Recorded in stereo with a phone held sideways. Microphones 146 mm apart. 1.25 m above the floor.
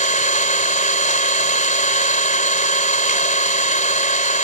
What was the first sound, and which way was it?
An engine running, 60° left (ahead or behind).